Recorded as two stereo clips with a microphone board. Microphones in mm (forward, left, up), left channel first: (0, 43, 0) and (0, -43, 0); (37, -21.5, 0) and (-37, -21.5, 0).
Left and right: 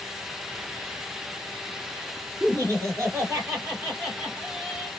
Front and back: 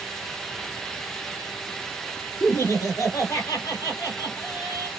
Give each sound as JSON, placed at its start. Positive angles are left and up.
{"t": 2.4, "sound": "laughter", "azimuth_deg": -45, "distance_m": 3.0}